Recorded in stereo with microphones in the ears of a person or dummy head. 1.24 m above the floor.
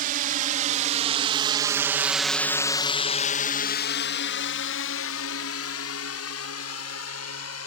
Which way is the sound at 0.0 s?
45° right (ahead or behind).